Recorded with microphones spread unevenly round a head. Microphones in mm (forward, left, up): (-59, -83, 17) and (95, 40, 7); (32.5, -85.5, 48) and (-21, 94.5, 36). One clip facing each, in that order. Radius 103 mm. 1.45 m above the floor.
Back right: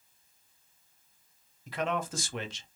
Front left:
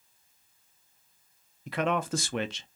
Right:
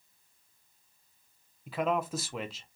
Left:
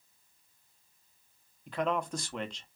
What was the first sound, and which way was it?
A man speaking, 10° left.